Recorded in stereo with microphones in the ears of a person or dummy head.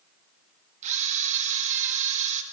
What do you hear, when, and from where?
0.8 s a camera shutter: 40° right (ahead or behind), 1.6 m